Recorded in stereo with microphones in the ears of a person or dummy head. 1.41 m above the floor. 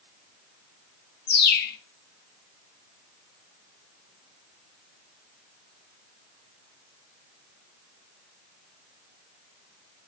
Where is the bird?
45° left (ahead or behind), 0.9 m.